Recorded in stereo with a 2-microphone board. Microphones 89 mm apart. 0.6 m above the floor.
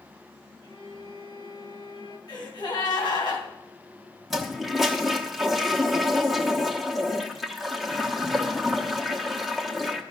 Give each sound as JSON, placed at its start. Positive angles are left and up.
{"t": 0.6, "sound": "a violin", "side_deg": 75, "distance_m": 2.0}
{"t": 2.3, "sound": "a gasp", "side_deg": 55, "distance_m": 2.5}
{"t": 4.3, "sound": "a toilet flushing", "side_deg": 0, "distance_m": 1.1}